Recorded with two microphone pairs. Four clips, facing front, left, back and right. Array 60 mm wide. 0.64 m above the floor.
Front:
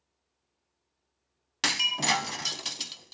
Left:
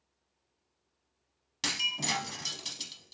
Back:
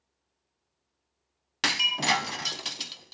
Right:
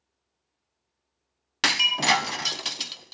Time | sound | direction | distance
1.6 | breaking glass | 110° right | 0.6 m